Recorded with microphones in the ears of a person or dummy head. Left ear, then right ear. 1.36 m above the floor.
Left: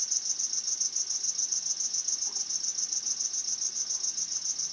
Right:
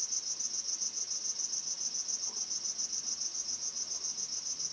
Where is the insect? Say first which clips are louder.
Left 5 dB; 60° left (ahead or behind), 1.6 m.